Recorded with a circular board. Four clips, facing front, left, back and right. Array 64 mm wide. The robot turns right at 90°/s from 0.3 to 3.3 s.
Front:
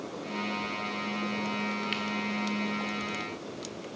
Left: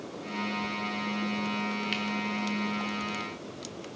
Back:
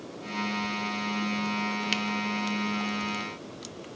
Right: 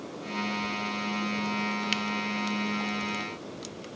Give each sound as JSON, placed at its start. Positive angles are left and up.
{"t": 1.9, "sound": "a camera shutter", "azimuth_deg": -140, "distance_m": 0.9}